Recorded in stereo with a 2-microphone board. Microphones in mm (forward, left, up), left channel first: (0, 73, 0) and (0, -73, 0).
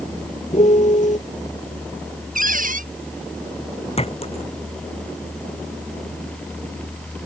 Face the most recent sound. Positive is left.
turn(degrees=45)  # may be behind; listen again after turning